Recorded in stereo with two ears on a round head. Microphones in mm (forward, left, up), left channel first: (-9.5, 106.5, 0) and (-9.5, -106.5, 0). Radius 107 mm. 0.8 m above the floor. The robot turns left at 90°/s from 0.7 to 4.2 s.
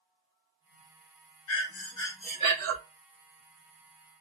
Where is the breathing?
65° left, 0.7 m; by 2.8 s 50° right, 0.7 m.